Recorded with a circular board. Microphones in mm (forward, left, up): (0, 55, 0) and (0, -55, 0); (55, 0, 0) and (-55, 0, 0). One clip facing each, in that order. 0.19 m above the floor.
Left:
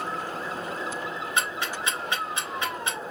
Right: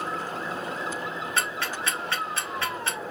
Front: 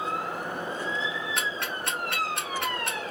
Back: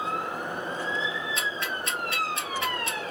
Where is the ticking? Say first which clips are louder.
Left 1 dB, even; 15° left, 1.3 m.